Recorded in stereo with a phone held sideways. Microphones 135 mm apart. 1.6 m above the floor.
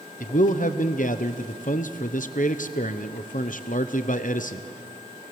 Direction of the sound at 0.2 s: 65° left (ahead or behind).